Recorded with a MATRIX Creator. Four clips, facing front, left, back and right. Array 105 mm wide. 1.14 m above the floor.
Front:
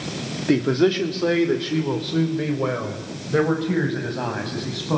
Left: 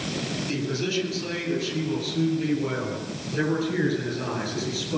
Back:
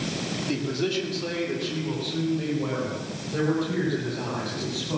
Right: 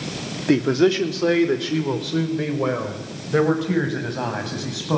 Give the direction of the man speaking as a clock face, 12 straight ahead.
2 o'clock.